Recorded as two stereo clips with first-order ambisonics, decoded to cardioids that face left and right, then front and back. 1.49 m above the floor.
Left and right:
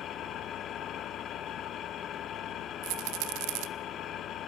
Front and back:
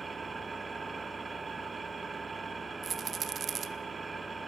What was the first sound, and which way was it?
An engine running, 110° left.